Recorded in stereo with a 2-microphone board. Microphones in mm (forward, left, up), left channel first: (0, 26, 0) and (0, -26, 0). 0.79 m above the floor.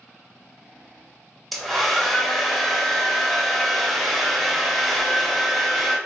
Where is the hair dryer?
5° left (ahead or behind), 0.6 m.